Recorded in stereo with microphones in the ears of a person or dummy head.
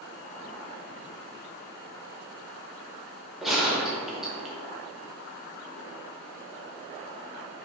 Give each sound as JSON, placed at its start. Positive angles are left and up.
{"t": 3.4, "sound": "a gunshot", "side_deg": 0, "distance_m": 0.8}